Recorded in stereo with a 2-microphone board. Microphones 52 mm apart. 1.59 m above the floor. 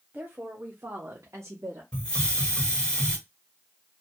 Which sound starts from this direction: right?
A woman speaking, at 0.1 s.